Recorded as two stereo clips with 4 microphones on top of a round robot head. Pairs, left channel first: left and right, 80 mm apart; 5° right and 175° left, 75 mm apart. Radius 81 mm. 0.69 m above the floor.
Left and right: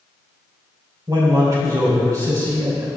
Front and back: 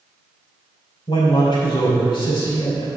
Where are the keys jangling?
I don't hear keys jangling.